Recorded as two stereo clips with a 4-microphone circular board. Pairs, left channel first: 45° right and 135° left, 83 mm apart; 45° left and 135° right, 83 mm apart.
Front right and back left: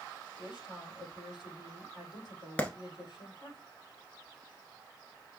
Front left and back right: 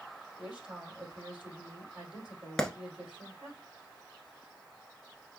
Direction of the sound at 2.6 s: 20° right.